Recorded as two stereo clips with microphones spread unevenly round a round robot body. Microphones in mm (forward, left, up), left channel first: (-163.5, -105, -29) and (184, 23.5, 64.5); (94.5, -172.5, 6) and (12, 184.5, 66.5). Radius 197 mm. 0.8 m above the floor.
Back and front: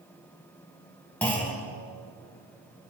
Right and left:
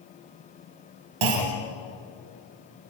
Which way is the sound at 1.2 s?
115° left.